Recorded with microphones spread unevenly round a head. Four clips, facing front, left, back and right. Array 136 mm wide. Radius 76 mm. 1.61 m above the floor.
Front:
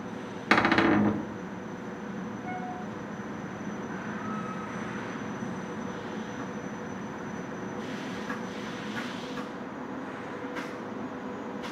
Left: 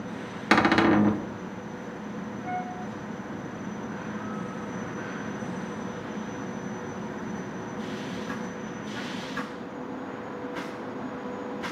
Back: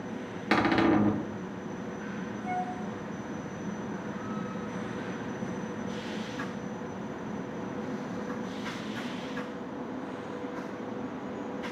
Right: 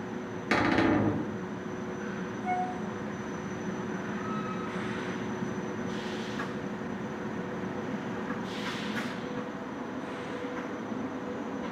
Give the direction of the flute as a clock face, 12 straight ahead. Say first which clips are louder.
Right 3 dB, back 6 dB; 3 o'clock.